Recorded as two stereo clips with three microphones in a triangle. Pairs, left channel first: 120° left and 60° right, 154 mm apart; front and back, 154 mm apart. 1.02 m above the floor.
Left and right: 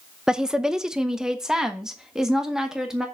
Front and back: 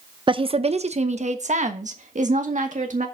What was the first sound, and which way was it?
A woman speaking, 145° right.